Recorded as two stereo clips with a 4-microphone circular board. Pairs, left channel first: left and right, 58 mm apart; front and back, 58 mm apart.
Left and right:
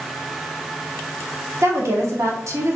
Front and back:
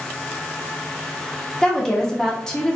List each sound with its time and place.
1.6 s a woman speaking: 75° right, 1.1 m